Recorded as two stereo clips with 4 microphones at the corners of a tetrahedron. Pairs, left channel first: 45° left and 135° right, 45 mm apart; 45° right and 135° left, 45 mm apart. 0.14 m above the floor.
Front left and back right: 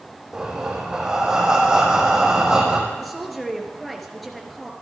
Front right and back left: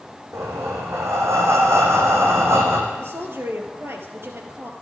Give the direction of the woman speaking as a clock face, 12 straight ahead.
8 o'clock.